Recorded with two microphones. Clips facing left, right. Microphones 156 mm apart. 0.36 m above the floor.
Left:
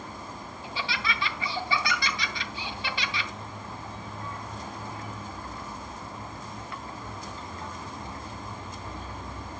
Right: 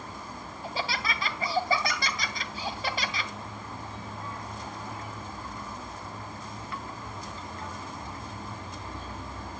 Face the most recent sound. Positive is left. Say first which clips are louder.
# right 1 dB
turn(degrees=-35)  # may be behind; listen again after turning